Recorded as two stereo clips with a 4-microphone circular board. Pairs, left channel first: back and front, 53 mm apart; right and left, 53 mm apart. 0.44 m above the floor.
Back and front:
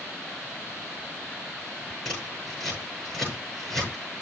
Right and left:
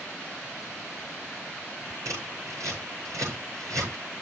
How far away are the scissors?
About 8 m.